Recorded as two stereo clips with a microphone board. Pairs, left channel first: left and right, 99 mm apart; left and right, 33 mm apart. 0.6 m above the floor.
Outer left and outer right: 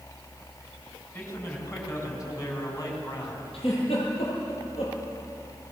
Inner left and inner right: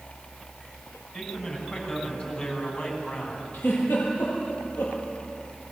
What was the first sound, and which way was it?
A man speaking, 25° left (ahead or behind).